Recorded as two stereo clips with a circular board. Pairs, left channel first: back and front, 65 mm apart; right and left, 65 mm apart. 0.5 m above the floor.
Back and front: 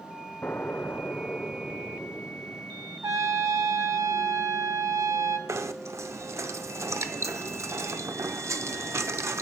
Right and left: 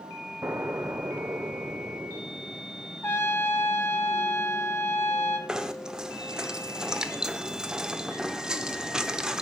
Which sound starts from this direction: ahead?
Knocking, at 5.5 s.